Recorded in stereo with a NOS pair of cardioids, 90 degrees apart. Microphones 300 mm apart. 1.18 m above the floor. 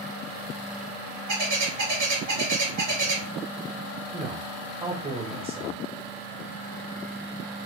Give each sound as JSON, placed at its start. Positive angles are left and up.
{"t": 1.3, "sound": "a bird", "azimuth_deg": -70, "distance_m": 1.5}
{"t": 4.1, "sound": "a man speaking", "azimuth_deg": -10, "distance_m": 1.1}